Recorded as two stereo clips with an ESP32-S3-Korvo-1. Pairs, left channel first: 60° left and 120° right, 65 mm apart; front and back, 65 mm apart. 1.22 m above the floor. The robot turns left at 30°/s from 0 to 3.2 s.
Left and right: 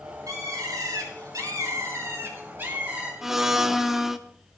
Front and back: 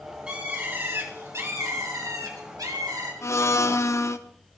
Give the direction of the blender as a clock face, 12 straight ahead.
1 o'clock.